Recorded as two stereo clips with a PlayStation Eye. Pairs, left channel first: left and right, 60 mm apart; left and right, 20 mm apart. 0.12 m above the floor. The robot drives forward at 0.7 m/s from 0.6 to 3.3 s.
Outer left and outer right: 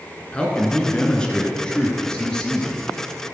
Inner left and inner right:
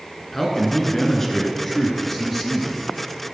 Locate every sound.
0.3 s a man speaking: 15° left (ahead or behind), 1.8 m; by 2.8 s 10° left (ahead or behind), 2.5 m